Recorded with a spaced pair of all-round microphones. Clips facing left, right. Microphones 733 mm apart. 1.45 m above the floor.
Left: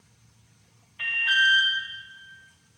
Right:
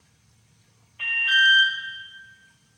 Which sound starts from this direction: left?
An alarm, at 1.0 s.